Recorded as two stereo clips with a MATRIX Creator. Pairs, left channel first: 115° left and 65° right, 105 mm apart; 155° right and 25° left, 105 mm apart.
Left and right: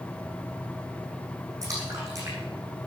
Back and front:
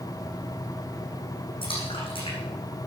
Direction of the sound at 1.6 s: 125° right.